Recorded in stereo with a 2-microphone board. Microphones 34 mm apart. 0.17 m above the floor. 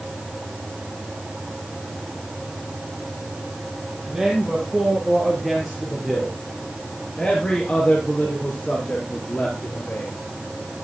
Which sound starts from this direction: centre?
A man speaking, at 4.1 s.